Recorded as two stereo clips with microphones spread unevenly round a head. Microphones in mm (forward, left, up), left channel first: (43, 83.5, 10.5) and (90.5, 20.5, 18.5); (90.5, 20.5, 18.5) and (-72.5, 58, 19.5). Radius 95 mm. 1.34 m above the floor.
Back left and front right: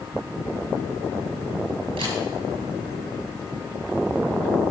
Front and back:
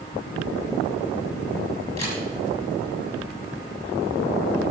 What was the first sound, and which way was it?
A camera shutter, 85° right.